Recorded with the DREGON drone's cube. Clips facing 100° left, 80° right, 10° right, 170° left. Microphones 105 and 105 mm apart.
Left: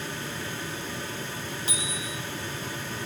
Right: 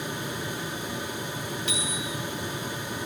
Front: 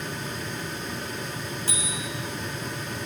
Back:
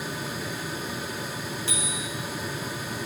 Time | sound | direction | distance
1.7 | a bicycle bell | 45° left | 10 m